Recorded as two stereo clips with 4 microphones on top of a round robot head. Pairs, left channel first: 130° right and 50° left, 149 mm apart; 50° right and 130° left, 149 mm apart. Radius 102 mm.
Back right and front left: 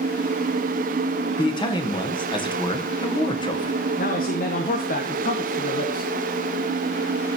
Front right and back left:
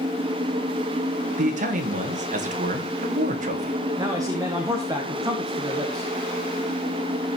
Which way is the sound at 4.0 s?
160° right.